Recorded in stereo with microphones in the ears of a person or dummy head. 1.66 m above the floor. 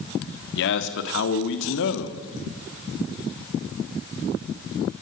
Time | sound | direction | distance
0.6 | a man speaking | 70° left (ahead or behind) | 3 m